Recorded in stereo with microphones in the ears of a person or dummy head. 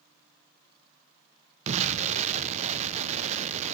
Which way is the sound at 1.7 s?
40° right (ahead or behind).